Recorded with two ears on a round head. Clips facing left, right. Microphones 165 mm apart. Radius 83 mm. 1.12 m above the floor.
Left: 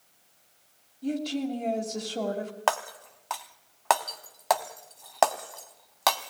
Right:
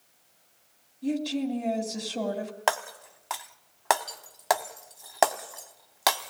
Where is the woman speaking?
5° right (ahead or behind), 3 m.